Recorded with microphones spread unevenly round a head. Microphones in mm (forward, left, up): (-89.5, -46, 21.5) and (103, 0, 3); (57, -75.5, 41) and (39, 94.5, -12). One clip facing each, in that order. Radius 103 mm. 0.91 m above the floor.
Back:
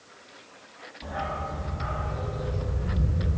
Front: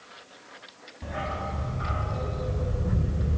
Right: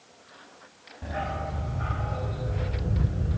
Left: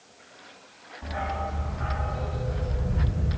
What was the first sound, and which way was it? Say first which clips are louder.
A dog barking: even, left 1 dB; 45° right.